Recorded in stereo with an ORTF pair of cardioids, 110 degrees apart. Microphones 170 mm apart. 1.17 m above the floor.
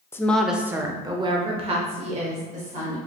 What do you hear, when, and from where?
0.1 s a woman speaking: 15° left, 0.6 m; by 3.0 s 50° right, 1.8 m